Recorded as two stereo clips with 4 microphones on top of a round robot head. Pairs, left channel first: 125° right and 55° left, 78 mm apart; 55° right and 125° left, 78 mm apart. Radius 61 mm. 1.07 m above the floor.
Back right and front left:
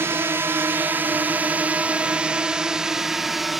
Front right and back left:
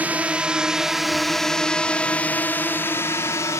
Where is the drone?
70° left; by 3.6 s 35° right.